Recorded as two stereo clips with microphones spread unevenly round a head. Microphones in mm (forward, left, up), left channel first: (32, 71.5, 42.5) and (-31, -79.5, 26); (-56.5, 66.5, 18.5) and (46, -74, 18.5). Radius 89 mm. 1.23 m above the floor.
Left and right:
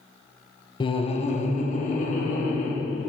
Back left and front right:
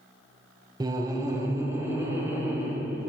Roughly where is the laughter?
Ahead.